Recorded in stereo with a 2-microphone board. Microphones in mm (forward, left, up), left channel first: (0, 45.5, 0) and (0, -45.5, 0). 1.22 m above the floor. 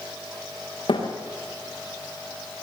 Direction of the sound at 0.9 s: 65° left (ahead or behind).